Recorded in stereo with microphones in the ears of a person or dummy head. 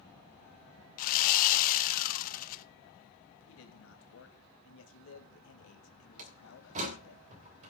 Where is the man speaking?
70° left (ahead or behind), 2 m.